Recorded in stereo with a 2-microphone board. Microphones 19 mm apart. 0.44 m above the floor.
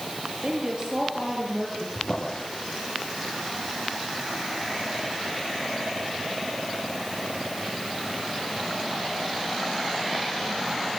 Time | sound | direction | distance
0.4 | a woman speaking | 30° right (ahead or behind) | 9.5 m
1.9 | a drawer | 45° left (ahead or behind) | 9 m